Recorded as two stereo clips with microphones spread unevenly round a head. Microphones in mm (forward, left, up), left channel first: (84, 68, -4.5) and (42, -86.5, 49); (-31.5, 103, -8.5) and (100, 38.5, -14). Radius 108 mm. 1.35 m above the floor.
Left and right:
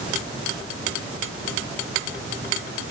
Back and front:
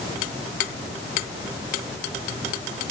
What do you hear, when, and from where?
Only background noise.